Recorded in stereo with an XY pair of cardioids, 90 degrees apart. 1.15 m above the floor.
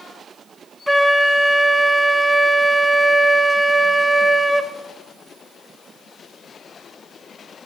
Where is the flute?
Straight ahead, 0.5 m.